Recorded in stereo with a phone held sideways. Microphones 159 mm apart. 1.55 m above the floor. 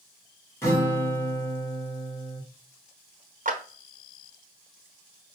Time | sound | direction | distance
0.6 | a guitar | 20° left (ahead or behind) | 1.5 m
3.5 | a clap | 55° right (ahead or behind) | 0.9 m